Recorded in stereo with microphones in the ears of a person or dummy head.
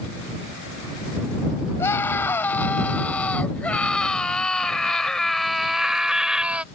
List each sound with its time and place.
1.8 s a scream: 15° left (ahead or behind); by 6.7 s 5° right (ahead or behind)